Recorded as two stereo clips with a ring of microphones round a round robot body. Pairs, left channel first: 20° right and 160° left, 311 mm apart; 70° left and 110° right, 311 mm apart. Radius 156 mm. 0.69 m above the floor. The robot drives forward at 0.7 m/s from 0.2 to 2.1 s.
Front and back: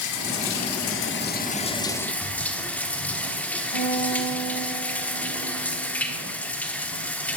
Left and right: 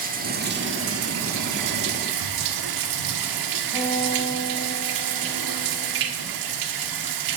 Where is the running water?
50° right, 1.6 m; by 7.4 s 110° right, 1.3 m.